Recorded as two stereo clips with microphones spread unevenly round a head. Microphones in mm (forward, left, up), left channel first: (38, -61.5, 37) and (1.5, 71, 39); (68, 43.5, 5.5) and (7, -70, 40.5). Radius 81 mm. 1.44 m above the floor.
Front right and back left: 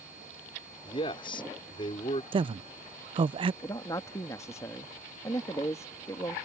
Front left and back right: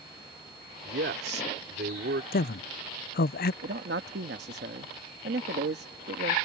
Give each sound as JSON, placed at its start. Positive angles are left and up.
{"t": 0.8, "sound": "a man speaking", "azimuth_deg": -135}
{"t": 2.3, "sound": "a man speaking", "azimuth_deg": 50}
{"t": 3.6, "sound": "a man speaking", "azimuth_deg": -145}